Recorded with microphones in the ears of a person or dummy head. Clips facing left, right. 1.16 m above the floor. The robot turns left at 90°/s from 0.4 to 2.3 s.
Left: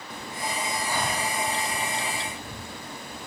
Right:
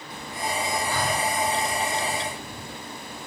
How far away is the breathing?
About 1.9 m.